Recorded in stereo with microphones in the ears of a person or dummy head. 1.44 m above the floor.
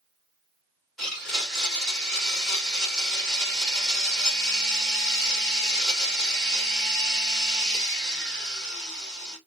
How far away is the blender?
About 3 m.